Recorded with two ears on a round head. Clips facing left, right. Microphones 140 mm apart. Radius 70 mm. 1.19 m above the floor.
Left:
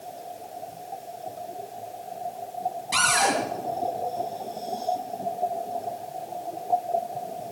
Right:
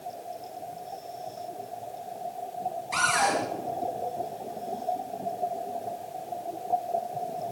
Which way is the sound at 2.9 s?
35° left (ahead or behind).